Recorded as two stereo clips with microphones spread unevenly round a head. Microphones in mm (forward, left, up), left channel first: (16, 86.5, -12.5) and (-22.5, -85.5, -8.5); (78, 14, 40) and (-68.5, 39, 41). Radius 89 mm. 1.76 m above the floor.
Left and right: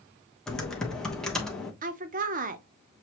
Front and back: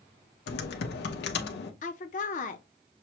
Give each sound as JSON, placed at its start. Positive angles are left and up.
{"t": 0.5, "sound": "typing on a keyboard", "azimuth_deg": -10, "distance_m": 0.9}
{"t": 1.8, "sound": "a woman speaking", "azimuth_deg": -55, "distance_m": 0.7}